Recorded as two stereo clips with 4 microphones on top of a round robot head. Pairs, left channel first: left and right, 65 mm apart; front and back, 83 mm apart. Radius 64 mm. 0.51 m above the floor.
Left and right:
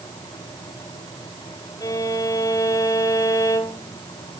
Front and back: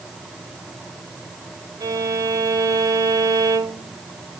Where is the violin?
135° left, 1.9 m.